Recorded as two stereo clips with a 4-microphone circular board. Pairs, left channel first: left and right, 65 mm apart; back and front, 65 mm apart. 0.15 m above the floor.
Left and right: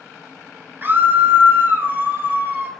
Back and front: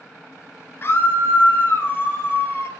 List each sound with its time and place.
0.8 s a scream: 135° right, 1.8 m